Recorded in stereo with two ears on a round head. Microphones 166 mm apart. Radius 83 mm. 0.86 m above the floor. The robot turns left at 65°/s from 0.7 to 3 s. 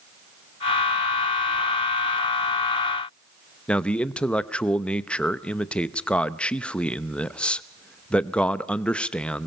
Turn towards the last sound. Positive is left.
turn(degrees=5)  # may be behind; listen again after turning